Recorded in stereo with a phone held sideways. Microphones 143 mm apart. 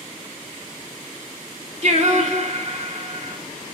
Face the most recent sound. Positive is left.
turn(degrees=-50)  # may be behind; listen again after turning